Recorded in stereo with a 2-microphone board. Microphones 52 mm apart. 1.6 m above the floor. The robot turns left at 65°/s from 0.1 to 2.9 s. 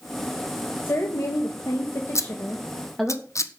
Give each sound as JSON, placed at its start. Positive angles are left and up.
{"t": 0.8, "sound": "a woman speaking", "azimuth_deg": 140, "distance_m": 2.0}
{"t": 2.1, "sound": "scissors", "side_deg": 60, "distance_m": 1.3}